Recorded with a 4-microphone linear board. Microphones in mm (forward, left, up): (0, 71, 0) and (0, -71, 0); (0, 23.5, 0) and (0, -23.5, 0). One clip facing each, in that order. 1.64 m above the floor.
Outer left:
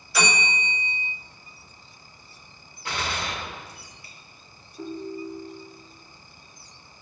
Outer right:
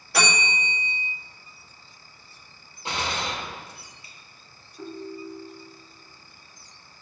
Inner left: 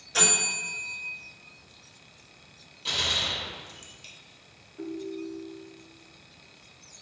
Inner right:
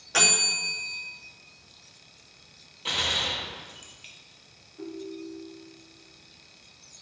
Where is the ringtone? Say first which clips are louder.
Outer left 3 dB, inner left 2 dB; 20° left (ahead or behind), 1.8 m.